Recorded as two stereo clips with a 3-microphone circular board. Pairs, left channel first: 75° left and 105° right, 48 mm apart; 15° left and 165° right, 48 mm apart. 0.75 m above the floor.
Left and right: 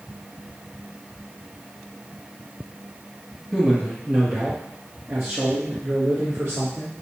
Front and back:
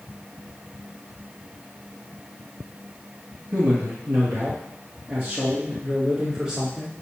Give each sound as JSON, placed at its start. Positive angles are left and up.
{"t": 3.5, "sound": "a man speaking", "azimuth_deg": -170, "distance_m": 1.3}